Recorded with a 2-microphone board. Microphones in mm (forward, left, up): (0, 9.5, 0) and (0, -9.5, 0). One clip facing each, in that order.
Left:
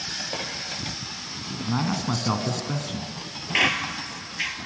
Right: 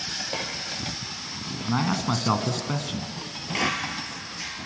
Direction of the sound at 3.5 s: 50° left (ahead or behind).